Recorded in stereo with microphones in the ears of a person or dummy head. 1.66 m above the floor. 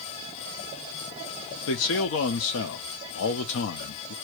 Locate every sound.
1.7 s a man speaking: 70° left (ahead or behind), 1.1 m